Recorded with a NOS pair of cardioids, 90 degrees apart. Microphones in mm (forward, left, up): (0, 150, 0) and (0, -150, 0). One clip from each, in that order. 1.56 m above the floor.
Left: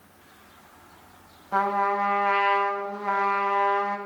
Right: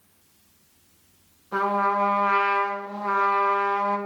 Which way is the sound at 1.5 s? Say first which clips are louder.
Right 1 dB; 15° left.